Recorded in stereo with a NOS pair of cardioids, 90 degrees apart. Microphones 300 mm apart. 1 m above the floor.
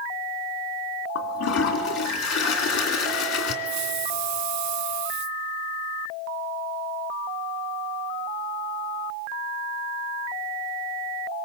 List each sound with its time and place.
1.1 s a toilet flushing: 60° left, 2.5 m
3.6 s a hiss: 70° right, 0.6 m